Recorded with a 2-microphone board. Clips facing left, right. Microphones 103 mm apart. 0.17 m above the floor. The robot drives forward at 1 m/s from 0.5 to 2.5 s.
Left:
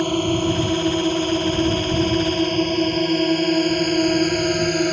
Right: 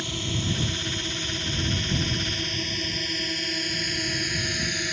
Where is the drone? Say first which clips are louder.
Left 13 dB; 50° left (ahead or behind).